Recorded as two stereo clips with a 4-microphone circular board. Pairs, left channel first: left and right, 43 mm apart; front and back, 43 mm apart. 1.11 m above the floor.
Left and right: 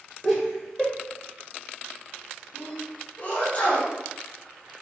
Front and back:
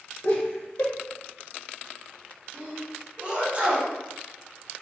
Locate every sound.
0.2 s laughter: 10° right, 0.7 m
2.5 s a sneeze: 125° left, 1.0 m